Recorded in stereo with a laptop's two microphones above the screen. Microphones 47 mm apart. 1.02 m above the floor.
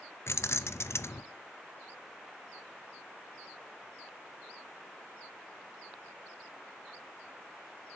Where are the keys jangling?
70° left (ahead or behind), 0.6 m.